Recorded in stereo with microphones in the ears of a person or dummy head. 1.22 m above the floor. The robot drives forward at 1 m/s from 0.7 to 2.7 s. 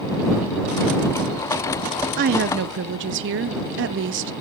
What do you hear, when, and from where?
2.2 s a woman speaking: 40° right (ahead or behind), 0.8 m; by 4.3 s 55° right (ahead or behind), 0.7 m